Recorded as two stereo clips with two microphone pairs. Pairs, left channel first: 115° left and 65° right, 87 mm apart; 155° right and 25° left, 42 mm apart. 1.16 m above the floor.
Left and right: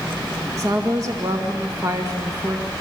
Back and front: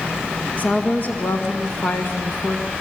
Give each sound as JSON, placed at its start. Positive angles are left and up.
{"t": 0.6, "sound": "a woman speaking", "azimuth_deg": -110, "distance_m": 1.9}